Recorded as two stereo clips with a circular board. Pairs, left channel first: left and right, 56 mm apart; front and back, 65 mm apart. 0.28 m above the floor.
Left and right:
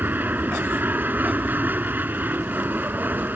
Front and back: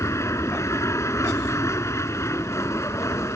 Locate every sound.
0.0 s an aircraft: 35° right